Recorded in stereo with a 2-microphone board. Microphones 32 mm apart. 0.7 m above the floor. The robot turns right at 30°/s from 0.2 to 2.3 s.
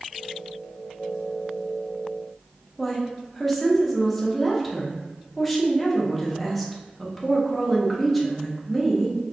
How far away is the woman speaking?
About 0.7 m.